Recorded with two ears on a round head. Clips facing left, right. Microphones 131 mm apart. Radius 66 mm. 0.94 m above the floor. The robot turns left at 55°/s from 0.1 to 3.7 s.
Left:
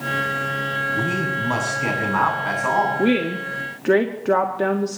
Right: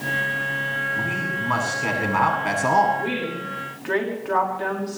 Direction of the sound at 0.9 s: 55° left.